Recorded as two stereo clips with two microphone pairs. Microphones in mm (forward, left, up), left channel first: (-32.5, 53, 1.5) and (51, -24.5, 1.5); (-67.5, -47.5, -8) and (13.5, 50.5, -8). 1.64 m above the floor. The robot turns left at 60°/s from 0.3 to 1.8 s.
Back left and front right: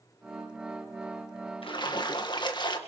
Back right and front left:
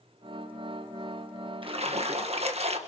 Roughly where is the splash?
Left.